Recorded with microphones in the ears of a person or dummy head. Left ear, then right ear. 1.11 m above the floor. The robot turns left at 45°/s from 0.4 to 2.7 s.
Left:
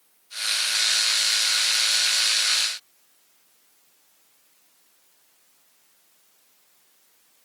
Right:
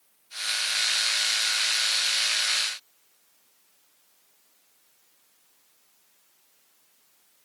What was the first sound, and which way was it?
Only background noise.